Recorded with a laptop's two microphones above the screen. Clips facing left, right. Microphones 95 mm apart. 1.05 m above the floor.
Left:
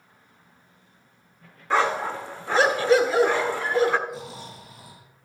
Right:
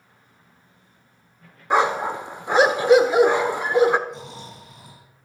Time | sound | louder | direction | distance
1.7 | a dog barking | right 3 dB | 20° right (ahead or behind) | 0.7 m
4.1 | snoring | even | 5° left (ahead or behind) | 6 m